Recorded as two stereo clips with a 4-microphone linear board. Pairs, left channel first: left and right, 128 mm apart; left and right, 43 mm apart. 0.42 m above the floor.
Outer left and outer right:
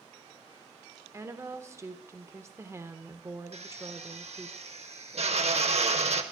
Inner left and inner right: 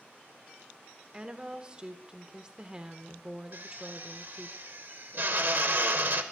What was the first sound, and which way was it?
A woman speaking, 20° right (ahead or behind).